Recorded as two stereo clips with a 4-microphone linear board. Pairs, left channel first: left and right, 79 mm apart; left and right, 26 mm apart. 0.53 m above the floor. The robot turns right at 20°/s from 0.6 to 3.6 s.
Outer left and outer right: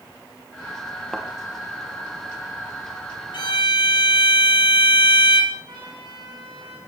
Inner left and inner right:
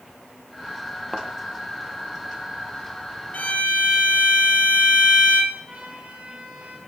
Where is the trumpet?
70° right (ahead or behind), 5 m.